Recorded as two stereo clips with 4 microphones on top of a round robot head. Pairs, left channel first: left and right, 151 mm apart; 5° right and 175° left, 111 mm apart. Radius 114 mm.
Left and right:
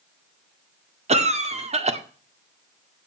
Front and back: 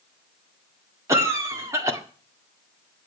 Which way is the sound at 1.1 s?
125° right.